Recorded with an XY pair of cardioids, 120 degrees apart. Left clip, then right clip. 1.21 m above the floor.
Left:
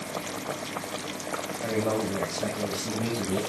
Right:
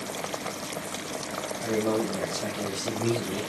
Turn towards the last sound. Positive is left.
turn(degrees=20)